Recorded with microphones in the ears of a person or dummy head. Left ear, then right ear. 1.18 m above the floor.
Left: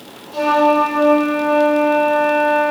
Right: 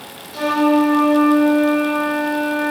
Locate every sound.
0.3 s a flute: 15° left (ahead or behind), 1.5 m